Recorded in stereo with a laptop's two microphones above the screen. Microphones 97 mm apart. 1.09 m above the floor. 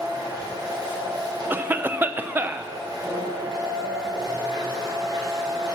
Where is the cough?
20° right (ahead or behind), 0.5 m.